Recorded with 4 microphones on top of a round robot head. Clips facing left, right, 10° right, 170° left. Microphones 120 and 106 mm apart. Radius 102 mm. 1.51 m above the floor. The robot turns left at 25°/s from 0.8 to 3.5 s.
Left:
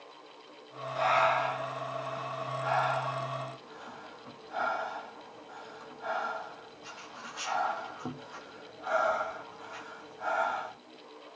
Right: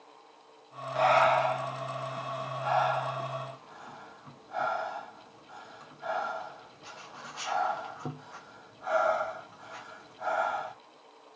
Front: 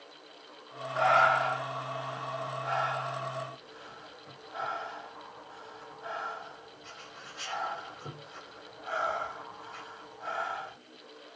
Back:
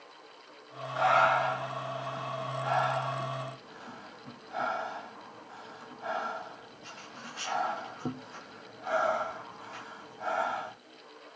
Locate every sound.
0.9 s breathing: 115° right, 1.0 m; by 10.7 s straight behind, 1.0 m